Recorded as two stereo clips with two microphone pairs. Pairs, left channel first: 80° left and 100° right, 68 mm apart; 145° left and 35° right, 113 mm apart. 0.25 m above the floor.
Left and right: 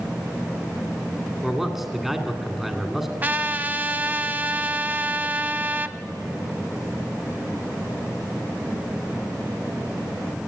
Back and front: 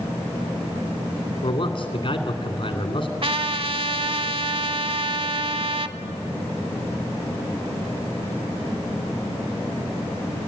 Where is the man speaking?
175° left, 2 m.